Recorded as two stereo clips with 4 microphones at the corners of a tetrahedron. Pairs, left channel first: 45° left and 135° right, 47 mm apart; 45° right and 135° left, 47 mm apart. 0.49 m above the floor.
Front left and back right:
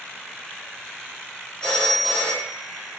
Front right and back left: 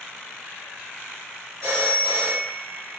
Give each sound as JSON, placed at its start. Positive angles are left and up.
{"t": 1.6, "sound": "a phone ringing", "azimuth_deg": 110, "distance_m": 1.5}